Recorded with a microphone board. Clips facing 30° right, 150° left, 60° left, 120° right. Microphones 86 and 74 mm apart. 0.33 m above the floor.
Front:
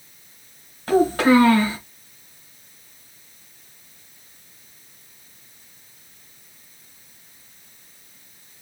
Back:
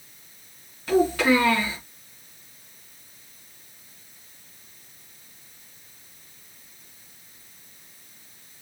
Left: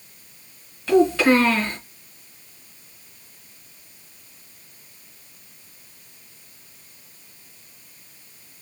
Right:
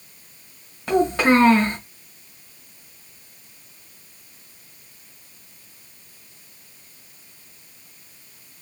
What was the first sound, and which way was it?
A child speaking, 75° right.